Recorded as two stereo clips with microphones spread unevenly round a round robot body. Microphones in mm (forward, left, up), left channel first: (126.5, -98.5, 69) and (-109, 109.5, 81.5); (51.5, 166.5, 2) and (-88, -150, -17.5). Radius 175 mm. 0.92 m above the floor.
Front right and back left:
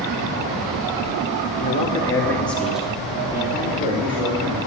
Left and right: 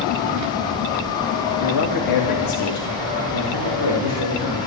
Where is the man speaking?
25° left, 1.7 m; by 4.6 s 65° left, 3.5 m.